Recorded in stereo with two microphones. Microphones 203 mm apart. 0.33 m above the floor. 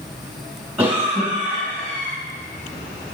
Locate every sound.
0.8 s a cough: 10° right (ahead or behind), 3.5 m